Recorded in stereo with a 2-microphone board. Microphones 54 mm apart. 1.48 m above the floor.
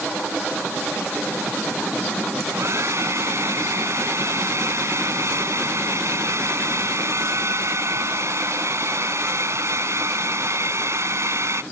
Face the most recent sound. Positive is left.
turn(degrees=-60)  # may be behind; listen again after turning